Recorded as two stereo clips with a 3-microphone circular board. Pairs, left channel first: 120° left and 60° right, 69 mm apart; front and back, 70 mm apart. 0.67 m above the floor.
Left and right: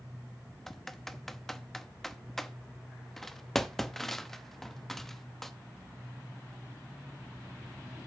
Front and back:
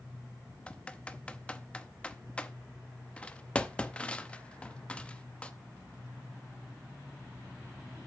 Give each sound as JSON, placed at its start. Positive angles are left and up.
{"t": 0.7, "sound": "typing on a keyboard", "azimuth_deg": 45, "distance_m": 0.7}